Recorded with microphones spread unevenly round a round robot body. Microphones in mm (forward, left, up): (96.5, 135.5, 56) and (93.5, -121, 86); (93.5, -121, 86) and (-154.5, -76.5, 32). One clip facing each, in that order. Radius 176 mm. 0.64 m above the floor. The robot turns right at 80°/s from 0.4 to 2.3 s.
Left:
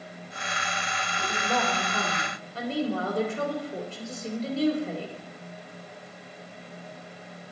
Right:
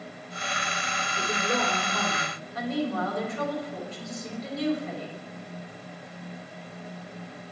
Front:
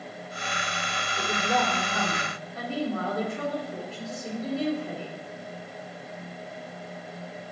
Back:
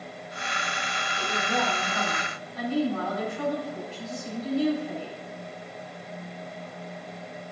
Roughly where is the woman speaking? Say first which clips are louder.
Right 1 dB, front 2 dB; ahead right.